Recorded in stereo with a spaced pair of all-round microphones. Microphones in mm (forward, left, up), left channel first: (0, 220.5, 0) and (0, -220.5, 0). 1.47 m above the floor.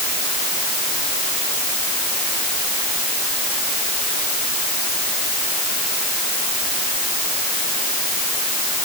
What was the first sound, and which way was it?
Only background noise.